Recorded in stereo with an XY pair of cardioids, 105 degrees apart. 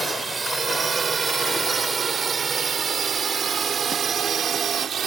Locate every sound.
0.0 s a drone: 30° right; by 5.1 s 55° right